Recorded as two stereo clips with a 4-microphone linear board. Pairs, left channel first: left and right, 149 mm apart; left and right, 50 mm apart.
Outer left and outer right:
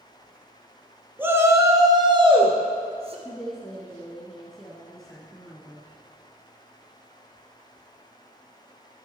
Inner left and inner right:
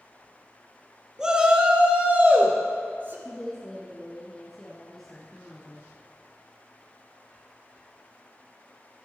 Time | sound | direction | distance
1.2 | a shout | 15° right (ahead or behind) | 1.4 m
3.2 | a woman speaking | centre (ahead or behind) | 1.5 m